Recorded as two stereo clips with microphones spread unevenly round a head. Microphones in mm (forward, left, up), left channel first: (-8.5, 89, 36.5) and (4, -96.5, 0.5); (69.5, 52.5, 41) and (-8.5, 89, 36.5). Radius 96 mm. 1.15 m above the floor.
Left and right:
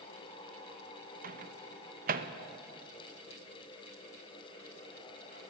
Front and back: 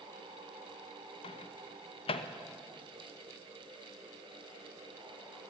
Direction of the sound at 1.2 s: 45° right.